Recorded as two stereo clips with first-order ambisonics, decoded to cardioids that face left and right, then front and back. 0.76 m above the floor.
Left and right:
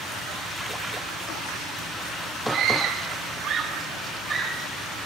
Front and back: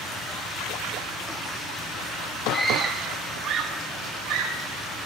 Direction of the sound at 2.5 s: 100° right.